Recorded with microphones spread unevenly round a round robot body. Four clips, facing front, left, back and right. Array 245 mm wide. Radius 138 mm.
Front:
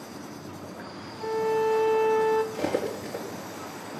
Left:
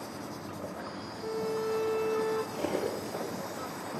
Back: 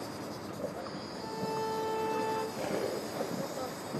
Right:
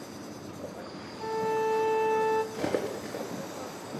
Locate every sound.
0.0 s an insect: 150° right, 1.1 m
1.2 s a violin: 95° right, 1.2 m
2.5 s cutlery clinking: 85° right, 4 m